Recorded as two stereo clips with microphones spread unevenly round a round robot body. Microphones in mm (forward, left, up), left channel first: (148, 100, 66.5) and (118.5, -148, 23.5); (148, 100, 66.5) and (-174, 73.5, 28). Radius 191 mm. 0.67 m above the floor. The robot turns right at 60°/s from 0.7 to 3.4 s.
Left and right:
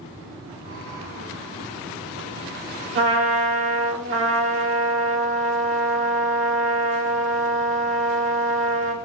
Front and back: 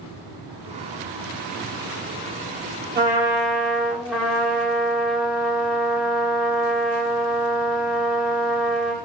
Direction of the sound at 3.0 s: 120° right.